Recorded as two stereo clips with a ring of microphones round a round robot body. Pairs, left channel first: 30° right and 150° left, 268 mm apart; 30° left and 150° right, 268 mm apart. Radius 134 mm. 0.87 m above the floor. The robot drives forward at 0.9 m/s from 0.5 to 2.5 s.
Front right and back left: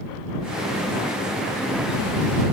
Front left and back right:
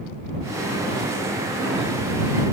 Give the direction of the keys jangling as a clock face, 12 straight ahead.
I don't hear keys jangling.